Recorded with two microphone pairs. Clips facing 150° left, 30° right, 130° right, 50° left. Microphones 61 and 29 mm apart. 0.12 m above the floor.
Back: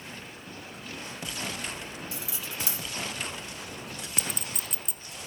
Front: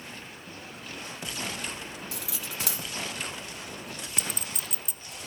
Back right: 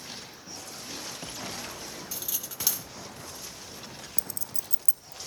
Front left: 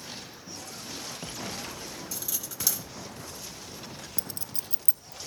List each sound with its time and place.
2.1 s cutlery clinking: 60° right, 2.5 m
4.2 s a clink: 60° left, 0.8 m